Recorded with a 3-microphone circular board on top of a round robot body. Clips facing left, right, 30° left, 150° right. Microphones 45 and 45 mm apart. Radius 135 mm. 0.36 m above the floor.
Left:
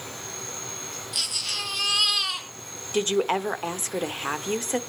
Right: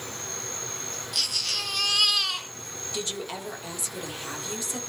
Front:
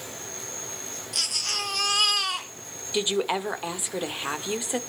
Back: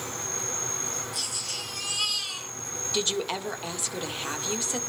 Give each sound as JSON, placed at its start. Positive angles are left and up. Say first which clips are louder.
{"t": 0.0, "sound": "an insect", "louder": "even, back 4 dB", "azimuth_deg": 175, "distance_m": 6.5}
{"t": 1.1, "sound": "a baby crying", "louder": "even, front 5 dB", "azimuth_deg": 5, "distance_m": 2.0}
{"t": 2.9, "sound": "a woman speaking", "louder": "left 11 dB, front 4 dB", "azimuth_deg": 90, "distance_m": 1.5}